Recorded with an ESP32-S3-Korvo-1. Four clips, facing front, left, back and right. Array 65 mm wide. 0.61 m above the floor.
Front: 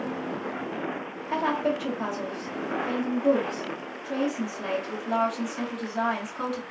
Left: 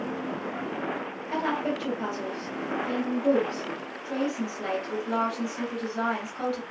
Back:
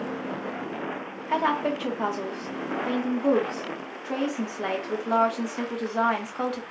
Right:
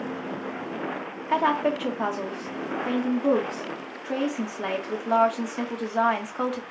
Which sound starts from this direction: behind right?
A woman speaking, at 1.3 s.